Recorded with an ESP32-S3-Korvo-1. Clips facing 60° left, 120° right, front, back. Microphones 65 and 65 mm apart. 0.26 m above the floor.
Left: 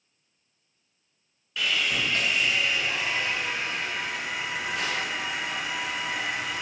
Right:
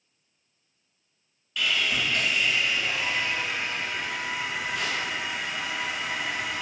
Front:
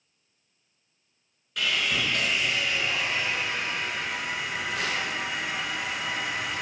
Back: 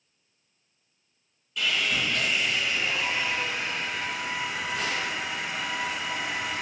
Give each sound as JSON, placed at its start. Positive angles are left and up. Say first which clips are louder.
{"t": 1.6, "sound": "sawing", "louder": "even, even", "azimuth_deg": -10, "distance_m": 1.2}